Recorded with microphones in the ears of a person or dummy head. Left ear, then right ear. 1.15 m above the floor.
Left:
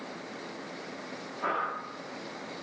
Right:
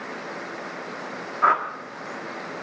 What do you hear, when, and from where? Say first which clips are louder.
1.4 s a whoosh: right 11 dB; 50° right (ahead or behind), 1.5 m